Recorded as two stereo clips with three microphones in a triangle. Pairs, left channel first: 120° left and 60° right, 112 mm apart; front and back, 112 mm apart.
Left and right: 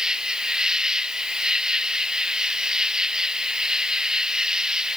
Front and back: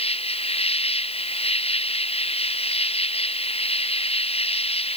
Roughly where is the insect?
Ahead left.